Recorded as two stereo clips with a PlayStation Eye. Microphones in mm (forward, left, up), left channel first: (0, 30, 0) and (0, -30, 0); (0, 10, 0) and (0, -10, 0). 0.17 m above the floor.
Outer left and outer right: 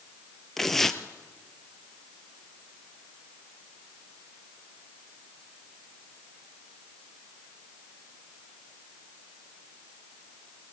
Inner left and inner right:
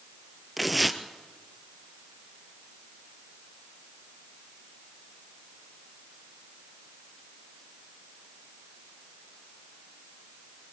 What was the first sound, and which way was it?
Tearing paper, 5° left (ahead or behind).